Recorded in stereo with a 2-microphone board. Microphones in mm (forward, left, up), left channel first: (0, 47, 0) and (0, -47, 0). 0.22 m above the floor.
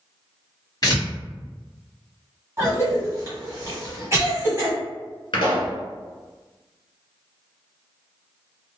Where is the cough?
30° right (ahead or behind), 1.5 m.